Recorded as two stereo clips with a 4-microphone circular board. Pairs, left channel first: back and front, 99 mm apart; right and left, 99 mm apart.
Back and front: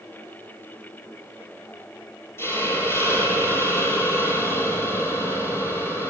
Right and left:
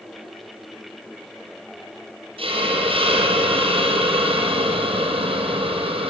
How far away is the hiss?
About 5 m.